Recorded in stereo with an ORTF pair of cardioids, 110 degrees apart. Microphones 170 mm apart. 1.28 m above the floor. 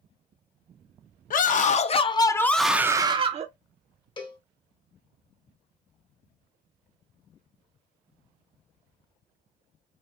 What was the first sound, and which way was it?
A scream, 50° left.